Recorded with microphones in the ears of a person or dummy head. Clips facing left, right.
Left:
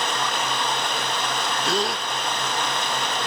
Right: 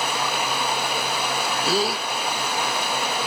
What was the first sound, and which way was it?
Running water, 10° right (ahead or behind).